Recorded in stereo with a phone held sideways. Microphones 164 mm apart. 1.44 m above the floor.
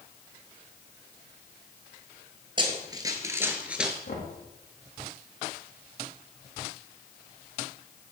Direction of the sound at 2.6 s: 30° right (ahead or behind).